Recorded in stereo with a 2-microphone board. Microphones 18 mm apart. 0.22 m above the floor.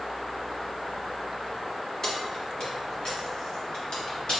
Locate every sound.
2.0 s keys jangling: 40° left (ahead or behind), 1.2 m; by 4.4 s 55° left (ahead or behind), 2.5 m